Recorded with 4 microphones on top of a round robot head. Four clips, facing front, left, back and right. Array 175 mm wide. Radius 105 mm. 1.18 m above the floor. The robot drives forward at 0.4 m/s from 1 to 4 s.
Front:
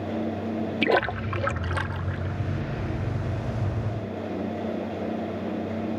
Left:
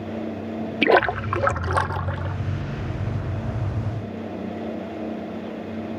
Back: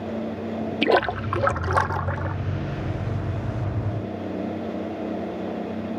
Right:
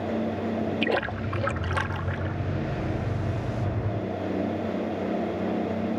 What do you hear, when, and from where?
0.8 s a splash: 110° left; by 2.4 s 155° left